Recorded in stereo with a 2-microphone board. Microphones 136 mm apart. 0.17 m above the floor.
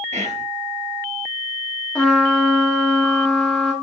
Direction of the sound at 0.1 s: 55° right (ahead or behind).